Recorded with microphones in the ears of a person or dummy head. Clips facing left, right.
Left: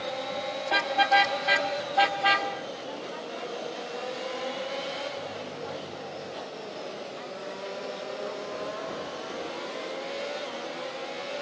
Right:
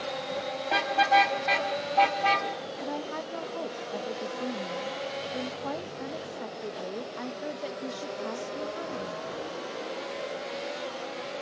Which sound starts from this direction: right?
A woman speaking, at 2.8 s.